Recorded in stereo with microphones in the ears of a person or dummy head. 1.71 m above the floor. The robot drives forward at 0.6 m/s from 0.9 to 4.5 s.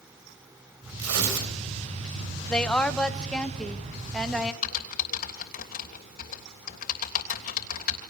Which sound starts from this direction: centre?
A woman speaking, at 2.5 s.